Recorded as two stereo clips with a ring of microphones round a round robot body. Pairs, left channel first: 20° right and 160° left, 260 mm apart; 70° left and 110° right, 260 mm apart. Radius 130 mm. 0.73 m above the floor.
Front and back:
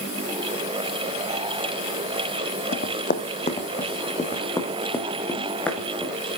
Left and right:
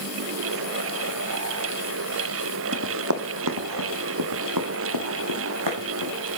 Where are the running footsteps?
70° right, 1.4 m; by 6.2 s 110° right, 3.5 m.